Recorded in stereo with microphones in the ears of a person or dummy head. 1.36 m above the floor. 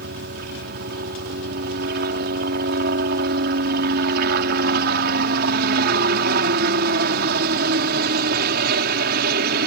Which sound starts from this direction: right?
A helicopter, at 0.0 s.